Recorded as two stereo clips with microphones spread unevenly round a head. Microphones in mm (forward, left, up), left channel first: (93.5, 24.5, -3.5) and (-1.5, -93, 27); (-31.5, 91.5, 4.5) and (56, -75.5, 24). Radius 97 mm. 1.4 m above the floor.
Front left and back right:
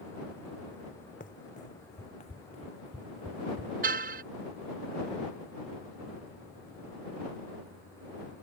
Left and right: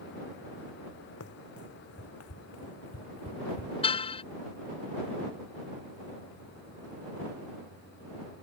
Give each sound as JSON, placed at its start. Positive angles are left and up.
{"t": 1.2, "sound": "running footsteps", "azimuth_deg": 105}
{"t": 3.8, "sound": "a car horn", "azimuth_deg": 180}